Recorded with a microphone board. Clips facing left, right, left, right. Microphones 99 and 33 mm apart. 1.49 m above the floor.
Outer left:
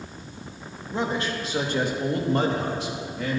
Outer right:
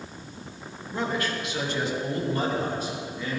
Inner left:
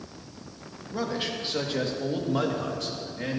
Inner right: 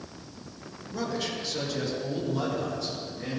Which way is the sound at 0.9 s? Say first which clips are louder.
Outer left 2 dB, inner left 1 dB; 20° left (ahead or behind).